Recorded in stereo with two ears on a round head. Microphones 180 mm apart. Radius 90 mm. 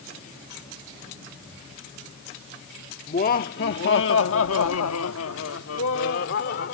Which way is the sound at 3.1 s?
40° left (ahead or behind).